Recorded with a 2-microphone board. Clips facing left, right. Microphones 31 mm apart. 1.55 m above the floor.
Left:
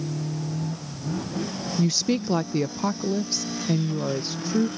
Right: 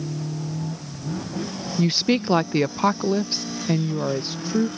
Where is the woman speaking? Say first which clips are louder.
Right 3 dB; 35° right (ahead or behind); by 4.7 s 15° right (ahead or behind).